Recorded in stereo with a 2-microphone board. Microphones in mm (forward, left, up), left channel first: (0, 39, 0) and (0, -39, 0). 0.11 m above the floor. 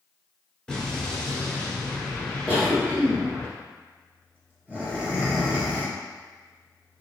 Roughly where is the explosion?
Centre.